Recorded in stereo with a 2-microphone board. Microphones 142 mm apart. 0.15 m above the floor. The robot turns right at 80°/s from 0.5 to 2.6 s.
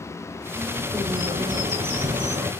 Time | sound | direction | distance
0.5 | a bird | straight behind | 1.3 m